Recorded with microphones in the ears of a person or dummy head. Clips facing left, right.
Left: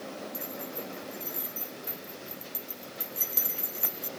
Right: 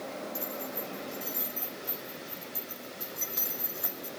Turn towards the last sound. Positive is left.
turn(degrees=45)  # may be behind; listen again after turning